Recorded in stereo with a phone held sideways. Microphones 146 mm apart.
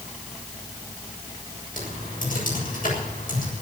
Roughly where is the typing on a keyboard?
Left.